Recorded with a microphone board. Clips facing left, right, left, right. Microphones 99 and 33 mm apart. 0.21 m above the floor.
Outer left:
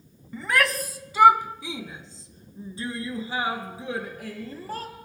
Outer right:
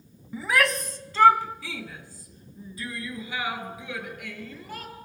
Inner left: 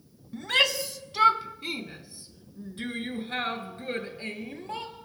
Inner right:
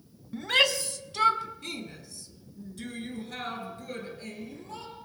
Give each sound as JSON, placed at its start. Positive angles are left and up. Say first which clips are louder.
{"t": 0.3, "sound": "a shout", "louder": "even, even", "side_deg": -5, "distance_m": 1.2}